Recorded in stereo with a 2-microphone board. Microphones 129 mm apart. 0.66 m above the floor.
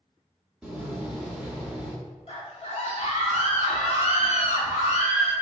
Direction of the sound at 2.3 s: 60° left (ahead or behind).